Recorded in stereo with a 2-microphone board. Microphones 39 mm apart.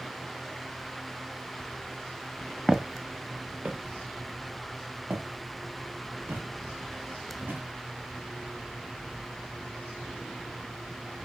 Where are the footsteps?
15° right (ahead or behind), 0.7 m; by 7.6 s 60° right (ahead or behind), 5 m.